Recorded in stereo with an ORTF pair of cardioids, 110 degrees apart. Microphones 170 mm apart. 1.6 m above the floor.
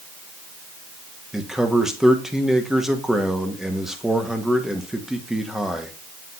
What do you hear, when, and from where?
1.3 s a man speaking: 5° right, 1.5 m